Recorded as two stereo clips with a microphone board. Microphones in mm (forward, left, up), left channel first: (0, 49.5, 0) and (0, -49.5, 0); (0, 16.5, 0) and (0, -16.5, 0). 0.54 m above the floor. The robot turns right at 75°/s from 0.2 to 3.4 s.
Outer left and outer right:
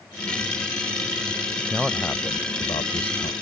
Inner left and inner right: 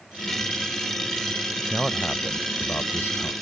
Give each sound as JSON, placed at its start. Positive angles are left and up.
{"t": 1.7, "sound": "a man speaking", "azimuth_deg": -15}